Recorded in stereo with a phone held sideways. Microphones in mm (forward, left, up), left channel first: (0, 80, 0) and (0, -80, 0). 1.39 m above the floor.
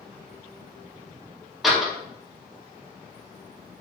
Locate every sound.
1.6 s a door slam: centre (ahead or behind), 2 m